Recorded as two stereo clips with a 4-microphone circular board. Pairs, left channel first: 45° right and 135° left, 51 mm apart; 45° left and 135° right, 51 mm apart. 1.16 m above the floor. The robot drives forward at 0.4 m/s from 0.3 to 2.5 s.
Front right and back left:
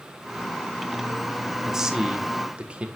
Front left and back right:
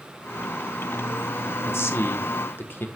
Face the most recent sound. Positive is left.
turn(degrees=75)